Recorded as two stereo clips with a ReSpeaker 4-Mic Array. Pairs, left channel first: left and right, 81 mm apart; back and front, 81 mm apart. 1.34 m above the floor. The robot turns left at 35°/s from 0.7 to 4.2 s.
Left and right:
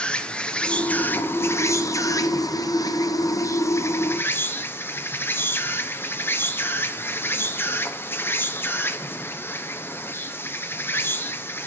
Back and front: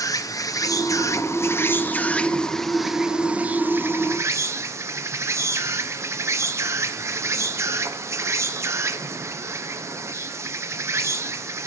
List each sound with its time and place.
0.0 s an insect: 160° left, 0.8 m; by 11.7 s 40° left, 0.8 m